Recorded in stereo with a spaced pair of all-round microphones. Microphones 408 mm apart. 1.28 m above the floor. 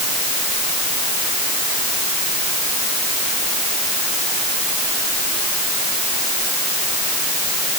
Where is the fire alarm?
I don't hear a fire alarm.